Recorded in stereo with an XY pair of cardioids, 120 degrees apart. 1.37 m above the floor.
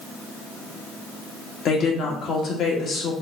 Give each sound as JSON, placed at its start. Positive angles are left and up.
{"t": 1.6, "sound": "a woman speaking", "azimuth_deg": 55, "distance_m": 1.1}